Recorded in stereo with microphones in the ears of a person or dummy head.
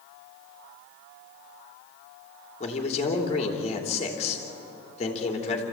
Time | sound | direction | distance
2.6 | a man speaking | 35° left (ahead or behind) | 3.5 m